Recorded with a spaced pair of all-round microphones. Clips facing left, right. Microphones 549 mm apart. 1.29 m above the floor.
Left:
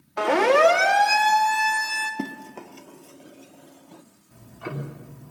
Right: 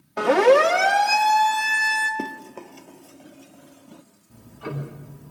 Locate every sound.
0.2 s a siren: 70° right (ahead or behind), 2 m; by 2.1 s 55° right (ahead or behind), 3.5 m
2.2 s running footsteps: 20° left (ahead or behind), 1.5 m; by 4.0 s 40° right (ahead or behind), 2.0 m
4.3 s ticking: 65° right (ahead or behind), 3.5 m